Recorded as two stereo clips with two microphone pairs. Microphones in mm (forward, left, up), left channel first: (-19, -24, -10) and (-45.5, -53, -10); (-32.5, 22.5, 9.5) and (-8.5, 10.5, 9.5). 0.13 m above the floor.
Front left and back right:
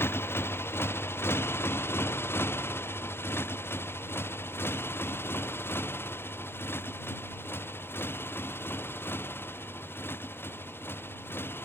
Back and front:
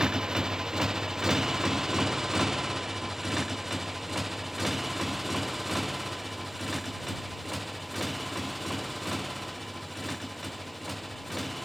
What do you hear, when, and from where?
0.0 s a motorcycle: 40° left; by 11.7 s 70° left